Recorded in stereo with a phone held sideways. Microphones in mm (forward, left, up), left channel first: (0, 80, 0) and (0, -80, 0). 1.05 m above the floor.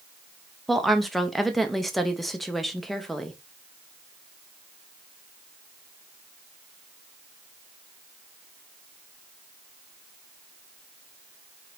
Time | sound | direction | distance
0.7 | a woman speaking | centre (ahead or behind) | 0.6 m